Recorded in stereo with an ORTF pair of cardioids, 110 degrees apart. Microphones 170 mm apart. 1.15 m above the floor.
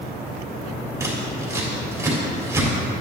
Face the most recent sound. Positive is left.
turn(degrees=-15)